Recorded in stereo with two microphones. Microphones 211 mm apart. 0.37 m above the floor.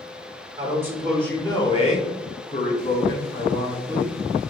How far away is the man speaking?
About 0.8 m.